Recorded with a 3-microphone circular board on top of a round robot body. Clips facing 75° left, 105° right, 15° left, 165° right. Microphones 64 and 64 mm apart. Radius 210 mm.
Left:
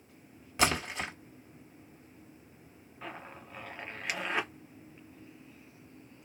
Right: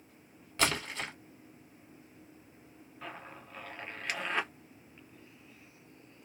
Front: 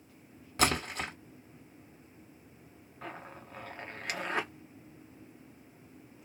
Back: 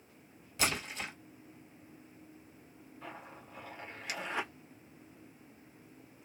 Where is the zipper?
5° right, 1.5 m.